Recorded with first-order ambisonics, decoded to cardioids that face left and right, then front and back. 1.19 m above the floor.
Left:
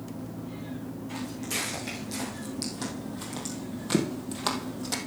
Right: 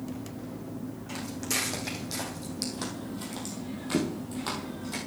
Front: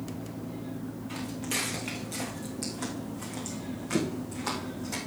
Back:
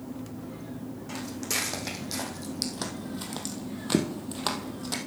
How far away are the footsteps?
About 4 m.